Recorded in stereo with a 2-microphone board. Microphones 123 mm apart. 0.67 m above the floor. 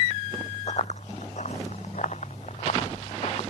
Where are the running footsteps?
55° left (ahead or behind); by 3.4 s 60° left (ahead or behind).